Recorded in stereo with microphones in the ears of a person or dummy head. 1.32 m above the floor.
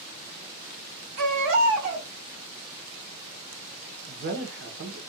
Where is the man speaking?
65° right (ahead or behind), 0.8 m.